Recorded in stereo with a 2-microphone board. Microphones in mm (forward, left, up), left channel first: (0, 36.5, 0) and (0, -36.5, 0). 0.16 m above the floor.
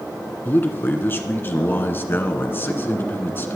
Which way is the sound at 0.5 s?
30° left (ahead or behind).